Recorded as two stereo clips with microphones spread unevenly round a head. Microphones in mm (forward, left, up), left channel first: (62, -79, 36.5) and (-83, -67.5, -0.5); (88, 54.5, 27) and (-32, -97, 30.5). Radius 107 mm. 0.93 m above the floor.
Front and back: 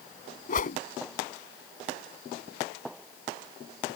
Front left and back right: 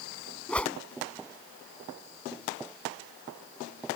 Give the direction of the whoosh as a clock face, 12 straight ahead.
1 o'clock.